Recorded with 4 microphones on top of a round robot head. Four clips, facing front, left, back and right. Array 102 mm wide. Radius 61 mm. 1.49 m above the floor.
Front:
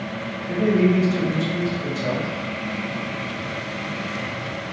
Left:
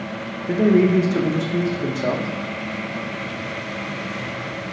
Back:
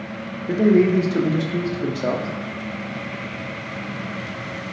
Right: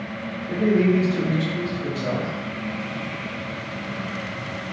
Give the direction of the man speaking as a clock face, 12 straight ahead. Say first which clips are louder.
Left 3 dB, back 3 dB; 8 o'clock.